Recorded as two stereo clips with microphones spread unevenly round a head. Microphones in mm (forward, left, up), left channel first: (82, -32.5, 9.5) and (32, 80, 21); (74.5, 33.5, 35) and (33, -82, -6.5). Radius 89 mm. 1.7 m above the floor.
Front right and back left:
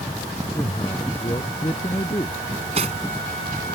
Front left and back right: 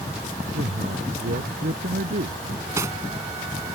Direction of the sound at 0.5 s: 135° right.